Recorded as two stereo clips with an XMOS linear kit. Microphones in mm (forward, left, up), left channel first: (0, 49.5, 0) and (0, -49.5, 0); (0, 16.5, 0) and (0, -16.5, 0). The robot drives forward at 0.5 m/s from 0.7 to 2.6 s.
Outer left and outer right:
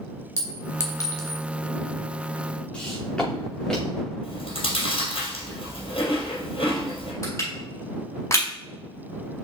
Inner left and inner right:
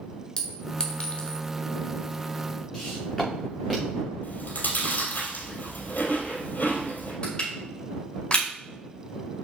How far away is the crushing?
About 4.5 m.